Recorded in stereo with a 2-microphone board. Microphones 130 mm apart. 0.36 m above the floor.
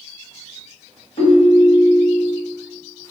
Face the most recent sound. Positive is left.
turn(degrees=55)  # may be behind; listen again after turning